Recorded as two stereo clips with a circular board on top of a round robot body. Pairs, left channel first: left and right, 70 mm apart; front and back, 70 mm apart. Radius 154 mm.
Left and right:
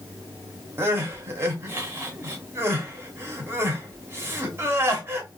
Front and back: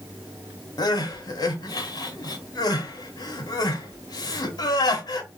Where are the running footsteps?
I don't hear running footsteps.